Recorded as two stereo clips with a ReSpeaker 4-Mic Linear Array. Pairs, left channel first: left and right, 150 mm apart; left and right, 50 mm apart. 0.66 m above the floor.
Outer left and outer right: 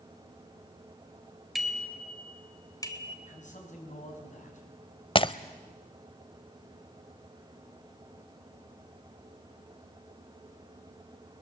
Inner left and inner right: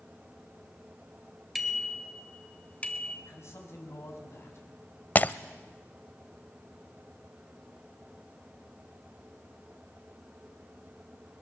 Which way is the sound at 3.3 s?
55° left (ahead or behind).